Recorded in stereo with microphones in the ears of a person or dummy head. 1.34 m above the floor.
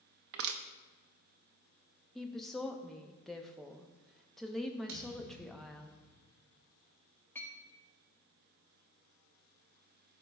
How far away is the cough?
No cough in this recording.